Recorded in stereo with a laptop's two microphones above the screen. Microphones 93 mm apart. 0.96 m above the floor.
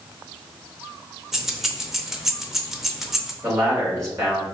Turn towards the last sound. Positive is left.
turn(degrees=-30)  # may be behind; listen again after turning